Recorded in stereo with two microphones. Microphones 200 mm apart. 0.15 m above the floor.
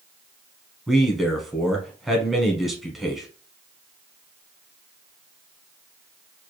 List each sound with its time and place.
0.9 s a man speaking: centre (ahead or behind), 1.0 m